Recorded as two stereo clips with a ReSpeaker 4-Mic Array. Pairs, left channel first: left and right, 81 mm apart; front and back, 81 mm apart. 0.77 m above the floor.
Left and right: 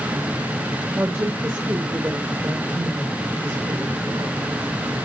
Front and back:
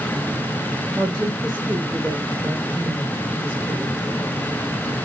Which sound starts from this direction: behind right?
A woman speaking, at 0.9 s.